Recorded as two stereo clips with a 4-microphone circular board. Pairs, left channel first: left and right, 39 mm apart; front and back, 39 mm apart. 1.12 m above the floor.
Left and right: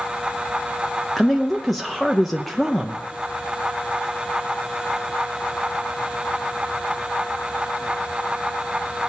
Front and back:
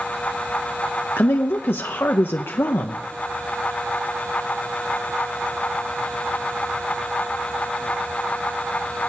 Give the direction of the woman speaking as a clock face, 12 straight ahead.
12 o'clock.